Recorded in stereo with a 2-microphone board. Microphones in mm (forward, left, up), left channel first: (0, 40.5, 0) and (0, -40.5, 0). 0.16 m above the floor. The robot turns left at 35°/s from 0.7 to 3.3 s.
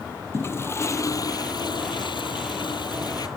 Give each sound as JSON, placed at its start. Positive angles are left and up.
{"t": 0.3, "sound": "a toilet flushing", "azimuth_deg": 145}